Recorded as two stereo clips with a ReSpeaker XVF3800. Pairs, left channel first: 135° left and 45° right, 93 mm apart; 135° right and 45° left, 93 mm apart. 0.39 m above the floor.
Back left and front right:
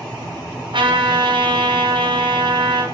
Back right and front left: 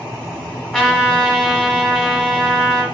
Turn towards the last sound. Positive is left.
turn(degrees=-55)